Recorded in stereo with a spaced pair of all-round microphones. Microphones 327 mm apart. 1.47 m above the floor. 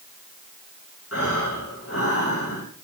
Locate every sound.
1.1 s breathing: 45° left (ahead or behind), 10 m